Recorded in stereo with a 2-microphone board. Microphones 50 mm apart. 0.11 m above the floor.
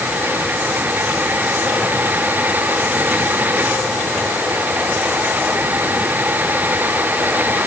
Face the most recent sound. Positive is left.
No sound to turn to.